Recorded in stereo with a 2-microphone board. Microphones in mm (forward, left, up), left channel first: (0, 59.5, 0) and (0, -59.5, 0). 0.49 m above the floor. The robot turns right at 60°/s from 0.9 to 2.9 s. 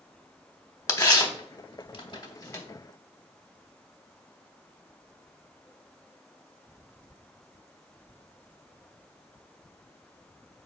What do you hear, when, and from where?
0.9 s tearing paper: 30° left (ahead or behind), 0.9 m; by 2.6 s 25° left (ahead or behind), 0.9 m